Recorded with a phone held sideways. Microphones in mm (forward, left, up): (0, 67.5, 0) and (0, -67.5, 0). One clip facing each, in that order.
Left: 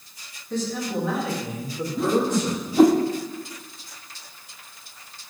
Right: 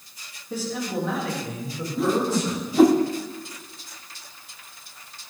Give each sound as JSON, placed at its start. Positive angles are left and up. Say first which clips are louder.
{"t": 0.5, "sound": "a man speaking", "louder": "left 1 dB", "side_deg": -10, "distance_m": 2.5}
{"t": 2.0, "sound": "a whoosh", "louder": "left 1 dB", "side_deg": 0, "distance_m": 0.8}